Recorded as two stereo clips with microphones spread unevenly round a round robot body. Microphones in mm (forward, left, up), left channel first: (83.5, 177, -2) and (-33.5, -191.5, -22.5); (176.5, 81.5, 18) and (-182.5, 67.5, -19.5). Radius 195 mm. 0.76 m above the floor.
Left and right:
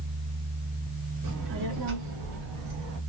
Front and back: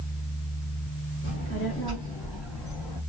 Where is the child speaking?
60° right, 1.7 m; by 3.0 s 75° right, 3 m.